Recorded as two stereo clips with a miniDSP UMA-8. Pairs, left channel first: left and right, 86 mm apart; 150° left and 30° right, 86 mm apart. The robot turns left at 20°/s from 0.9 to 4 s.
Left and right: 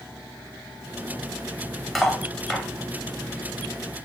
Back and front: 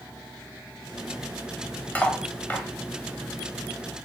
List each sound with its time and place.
1.9 s cutlery clinking: 170° left, 0.7 m; by 2.6 s 160° left, 0.7 m